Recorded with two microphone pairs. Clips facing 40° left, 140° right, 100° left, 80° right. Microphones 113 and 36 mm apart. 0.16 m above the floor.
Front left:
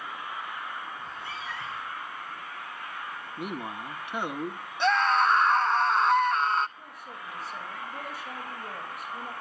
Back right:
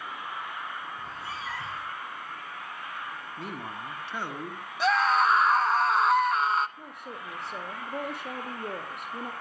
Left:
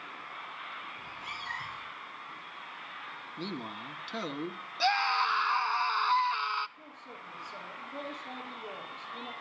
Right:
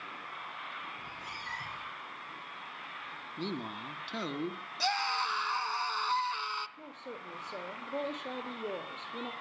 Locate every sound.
1.0 s a cat meowing: 165° left, 5.5 m
3.4 s a man speaking: 5° left, 1.0 m
4.8 s a scream: 140° left, 1.0 m
6.8 s a woman speaking: 115° right, 4 m